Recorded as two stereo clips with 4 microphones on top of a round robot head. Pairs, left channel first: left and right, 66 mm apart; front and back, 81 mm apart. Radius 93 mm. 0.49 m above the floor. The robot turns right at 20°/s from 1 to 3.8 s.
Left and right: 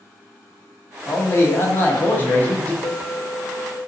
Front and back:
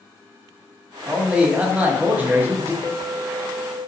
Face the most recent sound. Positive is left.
turn(degrees=85)